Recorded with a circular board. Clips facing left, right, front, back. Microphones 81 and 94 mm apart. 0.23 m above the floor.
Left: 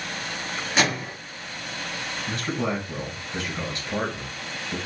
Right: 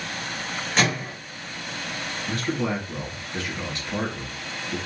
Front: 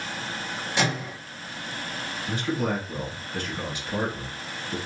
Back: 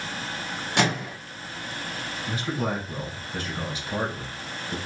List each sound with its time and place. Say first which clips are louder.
0.8 s a microwave: even, back 2 dB; 175° left, 2 m
2.3 s a man speaking: right 1 dB, front 2 dB; 145° left, 2 m